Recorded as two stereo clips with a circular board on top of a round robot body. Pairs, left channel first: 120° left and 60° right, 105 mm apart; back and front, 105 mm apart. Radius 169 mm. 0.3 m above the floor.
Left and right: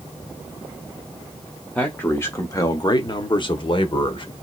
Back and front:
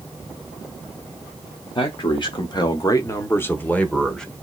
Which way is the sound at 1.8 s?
165° right.